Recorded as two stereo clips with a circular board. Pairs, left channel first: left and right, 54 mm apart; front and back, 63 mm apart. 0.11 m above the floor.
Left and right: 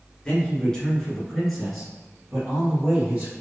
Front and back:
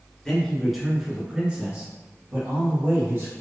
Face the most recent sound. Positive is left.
turn(degrees=-160)